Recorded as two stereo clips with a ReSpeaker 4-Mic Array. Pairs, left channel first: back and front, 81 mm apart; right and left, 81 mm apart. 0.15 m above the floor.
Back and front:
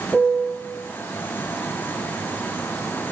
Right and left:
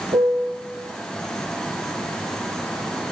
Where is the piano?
90° left, 4 m.